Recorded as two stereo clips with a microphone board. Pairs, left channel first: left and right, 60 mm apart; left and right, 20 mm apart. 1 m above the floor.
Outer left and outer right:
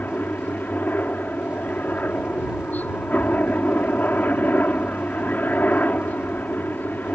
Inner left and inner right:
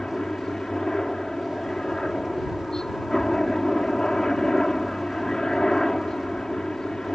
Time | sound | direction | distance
0.0 | a helicopter | 30° left (ahead or behind) | ?